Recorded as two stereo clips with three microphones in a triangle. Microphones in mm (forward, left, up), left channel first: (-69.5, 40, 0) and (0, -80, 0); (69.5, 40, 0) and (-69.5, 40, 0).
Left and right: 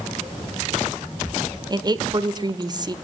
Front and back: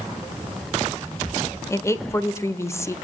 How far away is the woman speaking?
About 1.5 m.